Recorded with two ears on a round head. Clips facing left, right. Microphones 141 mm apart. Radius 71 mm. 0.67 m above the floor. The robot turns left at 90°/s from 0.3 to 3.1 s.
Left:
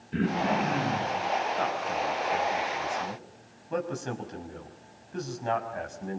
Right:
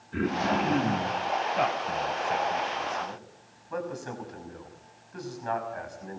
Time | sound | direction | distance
0.1 | throat clearing | 30° left | 9 m
1.6 | a man speaking | 70° right (ahead or behind) | 5.5 m